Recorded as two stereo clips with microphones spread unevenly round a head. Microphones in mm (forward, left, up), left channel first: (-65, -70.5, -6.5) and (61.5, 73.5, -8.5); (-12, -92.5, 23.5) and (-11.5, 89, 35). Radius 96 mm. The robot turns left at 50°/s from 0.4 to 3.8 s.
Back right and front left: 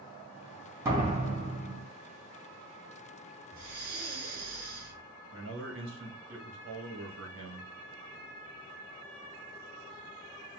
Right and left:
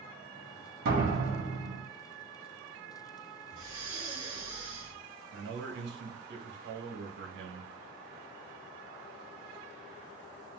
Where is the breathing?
25° left, 1.9 m; by 5.0 s 10° left, 1.9 m.